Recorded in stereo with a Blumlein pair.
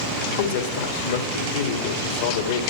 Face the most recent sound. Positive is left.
turn(degrees=55)